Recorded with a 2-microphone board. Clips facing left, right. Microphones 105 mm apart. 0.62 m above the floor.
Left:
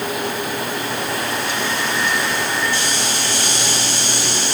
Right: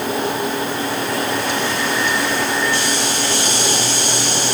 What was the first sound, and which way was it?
Only background noise.